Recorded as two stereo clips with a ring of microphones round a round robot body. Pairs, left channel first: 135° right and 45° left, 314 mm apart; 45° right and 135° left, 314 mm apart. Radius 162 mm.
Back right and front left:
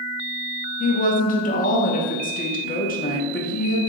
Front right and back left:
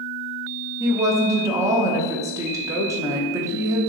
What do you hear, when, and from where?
0.8 s a woman speaking: 155° right, 0.6 m